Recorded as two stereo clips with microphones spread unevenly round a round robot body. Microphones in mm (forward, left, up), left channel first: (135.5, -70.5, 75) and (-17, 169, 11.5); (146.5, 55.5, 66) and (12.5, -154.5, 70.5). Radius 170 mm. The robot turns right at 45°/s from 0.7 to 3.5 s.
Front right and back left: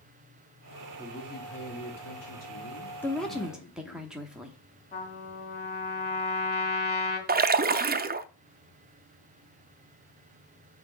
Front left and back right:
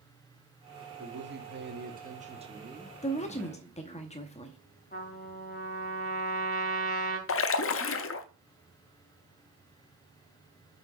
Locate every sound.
1.0 s a man speaking: 130° right, 1.5 m; by 4.0 s 20° right, 1.5 m
3.0 s a woman speaking: 45° left, 0.9 m; by 4.6 s 70° left, 0.9 m
4.9 s a trumpet: 5° left, 2.5 m
7.3 s a splash: 80° left, 0.7 m